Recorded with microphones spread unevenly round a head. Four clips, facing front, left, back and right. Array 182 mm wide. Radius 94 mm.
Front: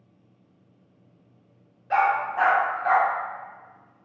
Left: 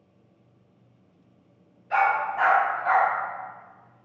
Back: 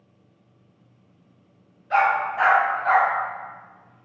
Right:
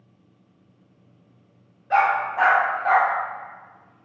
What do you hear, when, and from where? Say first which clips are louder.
1.9 s a dog barking: right 3 dB, back 2 dB; 45° right, 1.3 m